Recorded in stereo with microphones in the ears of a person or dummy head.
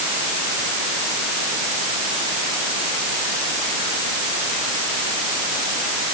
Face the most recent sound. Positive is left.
No sound to turn to.